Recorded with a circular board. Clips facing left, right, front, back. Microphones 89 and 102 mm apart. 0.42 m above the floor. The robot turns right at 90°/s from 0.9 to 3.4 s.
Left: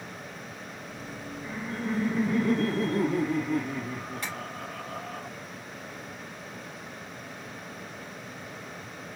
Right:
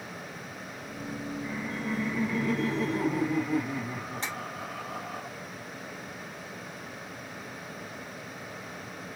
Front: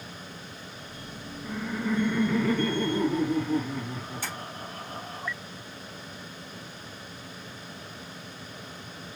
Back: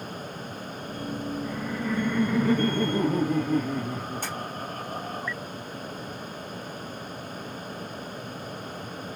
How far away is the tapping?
About 3 m.